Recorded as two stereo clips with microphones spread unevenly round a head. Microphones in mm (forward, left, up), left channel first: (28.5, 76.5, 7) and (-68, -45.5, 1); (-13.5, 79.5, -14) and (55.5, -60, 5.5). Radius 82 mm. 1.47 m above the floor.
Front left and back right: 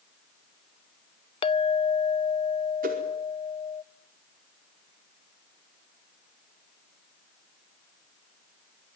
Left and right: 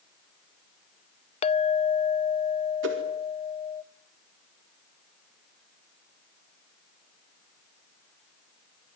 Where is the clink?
80° left, 0.8 m.